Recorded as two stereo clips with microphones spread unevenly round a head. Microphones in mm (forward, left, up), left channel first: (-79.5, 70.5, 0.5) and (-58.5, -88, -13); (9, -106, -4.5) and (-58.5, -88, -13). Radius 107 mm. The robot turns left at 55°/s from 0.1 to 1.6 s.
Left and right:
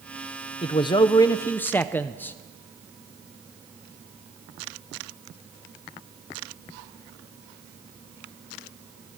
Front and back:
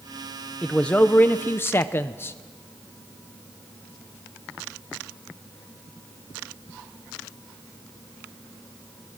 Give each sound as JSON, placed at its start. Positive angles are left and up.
{"t": 0.6, "sound": "a man speaking", "azimuth_deg": 75, "distance_m": 0.6}